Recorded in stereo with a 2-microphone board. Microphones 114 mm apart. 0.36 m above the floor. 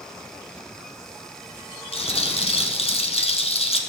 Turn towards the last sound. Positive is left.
turn(degrees=60)  # may be behind; listen again after turning